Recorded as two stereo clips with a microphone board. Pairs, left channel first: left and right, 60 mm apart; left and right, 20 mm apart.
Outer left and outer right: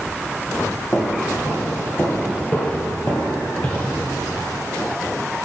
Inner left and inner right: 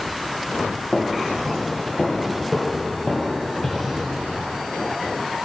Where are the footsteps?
50° left (ahead or behind), 2.5 m; by 4.0 s 20° left (ahead or behind), 1.8 m.